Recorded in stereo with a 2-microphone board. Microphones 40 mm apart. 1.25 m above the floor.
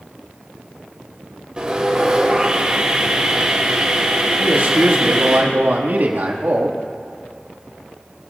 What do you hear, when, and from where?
1.6 s sawing: 25° right (ahead or behind), 2.5 m
4.4 s a man speaking: 60° right (ahead or behind), 1.9 m